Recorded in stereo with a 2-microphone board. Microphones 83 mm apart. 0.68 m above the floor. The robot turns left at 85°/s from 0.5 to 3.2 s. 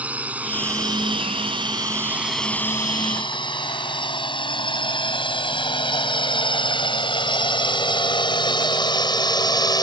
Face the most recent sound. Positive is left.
turn(degrees=50)  # may be behind; listen again after turning